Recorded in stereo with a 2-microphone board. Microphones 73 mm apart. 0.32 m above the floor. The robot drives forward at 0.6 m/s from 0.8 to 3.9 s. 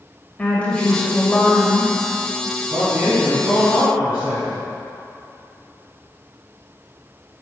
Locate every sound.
0.4 s a woman speaking: 20° left (ahead or behind), 1.7 m
2.7 s a man speaking: 30° right (ahead or behind), 1.8 m; by 4.6 s 25° right (ahead or behind), 2.5 m